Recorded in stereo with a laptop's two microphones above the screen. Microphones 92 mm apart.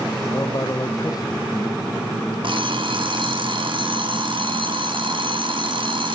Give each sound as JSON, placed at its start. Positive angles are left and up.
{"t": 0.3, "sound": "a man speaking", "side_deg": 45, "distance_m": 0.5}
{"t": 2.4, "sound": "an alarm clock", "side_deg": -65, "distance_m": 0.9}